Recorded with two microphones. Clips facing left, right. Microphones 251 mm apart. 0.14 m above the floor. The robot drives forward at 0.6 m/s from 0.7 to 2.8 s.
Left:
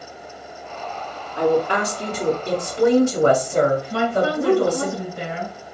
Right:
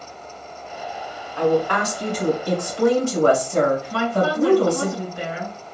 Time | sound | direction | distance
1.4 | a woman speaking | 25° left (ahead or behind) | 1.4 m
3.9 | a woman speaking | 25° left (ahead or behind) | 1.9 m